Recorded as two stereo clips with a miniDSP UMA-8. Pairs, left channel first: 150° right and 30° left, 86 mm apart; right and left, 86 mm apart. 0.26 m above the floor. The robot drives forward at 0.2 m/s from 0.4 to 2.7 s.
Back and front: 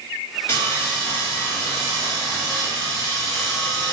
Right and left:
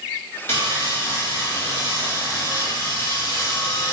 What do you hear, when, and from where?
0.5 s sawing: 120° right, 1.8 m; by 3.9 s 140° right, 1.9 m